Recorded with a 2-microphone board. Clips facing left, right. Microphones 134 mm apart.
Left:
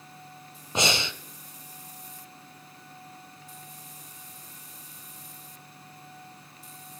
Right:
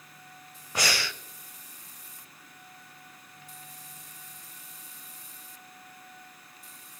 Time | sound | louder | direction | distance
0.8 | breathing | left 4 dB | 25° left (ahead or behind) | 0.6 m